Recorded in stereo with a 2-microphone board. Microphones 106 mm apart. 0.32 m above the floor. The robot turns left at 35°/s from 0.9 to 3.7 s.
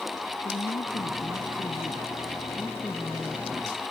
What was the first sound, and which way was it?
A woman speaking, 70° left.